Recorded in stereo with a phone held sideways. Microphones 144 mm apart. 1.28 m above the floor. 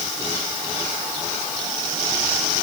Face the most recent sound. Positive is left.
No sound to turn to.